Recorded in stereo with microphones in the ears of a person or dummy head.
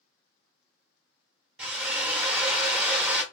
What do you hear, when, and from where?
1.6 s a drill: 10° right (ahead or behind), 0.7 m